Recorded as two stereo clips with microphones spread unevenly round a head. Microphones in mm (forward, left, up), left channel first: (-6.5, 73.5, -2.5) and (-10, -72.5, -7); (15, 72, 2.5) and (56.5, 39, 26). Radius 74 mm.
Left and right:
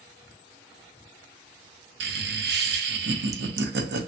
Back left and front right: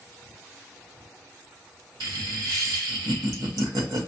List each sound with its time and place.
2.0 s laughter: 65° right, 0.7 m